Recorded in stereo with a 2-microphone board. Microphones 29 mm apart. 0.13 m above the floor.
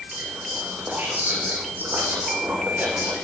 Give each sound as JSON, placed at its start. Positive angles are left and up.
{"t": 0.1, "sound": "whispering", "side_deg": -75, "distance_m": 7.5}